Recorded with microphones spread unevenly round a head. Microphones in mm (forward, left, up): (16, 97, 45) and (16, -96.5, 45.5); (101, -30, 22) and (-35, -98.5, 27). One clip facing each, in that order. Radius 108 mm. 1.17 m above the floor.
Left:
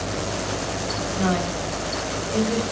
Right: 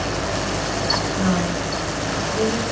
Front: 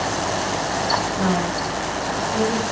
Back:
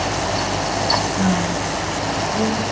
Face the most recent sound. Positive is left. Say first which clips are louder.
# right 1 dB, back 2 dB
turn(degrees=55)